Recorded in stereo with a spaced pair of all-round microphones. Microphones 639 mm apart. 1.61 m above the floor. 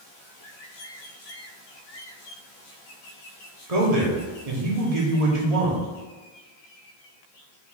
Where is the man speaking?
75° right (ahead or behind), 1.2 m.